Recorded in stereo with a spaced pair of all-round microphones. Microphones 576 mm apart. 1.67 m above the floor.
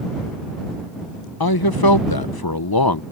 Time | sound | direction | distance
1.4 | a man speaking | 40° left (ahead or behind) | ?